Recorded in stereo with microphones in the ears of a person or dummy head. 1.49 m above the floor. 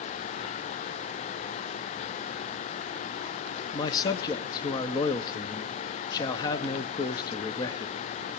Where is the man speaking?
20° left (ahead or behind), 0.8 m.